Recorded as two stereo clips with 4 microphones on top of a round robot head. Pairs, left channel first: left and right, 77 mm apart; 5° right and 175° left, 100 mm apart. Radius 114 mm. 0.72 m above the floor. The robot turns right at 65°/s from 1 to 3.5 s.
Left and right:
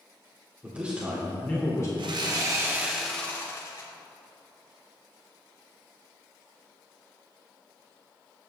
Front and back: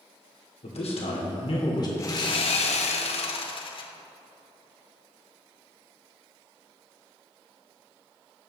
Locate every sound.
0.6 s a man speaking: 15° right, 2.5 m; by 1.9 s 45° left, 2.5 m
2.0 s sawing: 70° right, 1.2 m; by 3.9 s 30° left, 1.2 m